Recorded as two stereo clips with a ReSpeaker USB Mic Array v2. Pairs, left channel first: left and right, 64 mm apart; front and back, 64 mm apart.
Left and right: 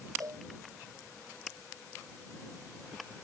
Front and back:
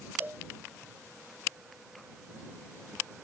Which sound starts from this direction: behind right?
A cowbell, at 0.2 s.